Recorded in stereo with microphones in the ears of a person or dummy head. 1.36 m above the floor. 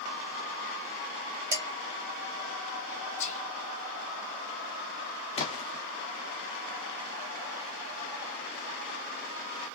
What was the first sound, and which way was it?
Dishes clattering, 20° right (ahead or behind).